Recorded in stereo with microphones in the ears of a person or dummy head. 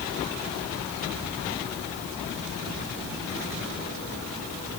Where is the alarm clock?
I don't hear an alarm clock.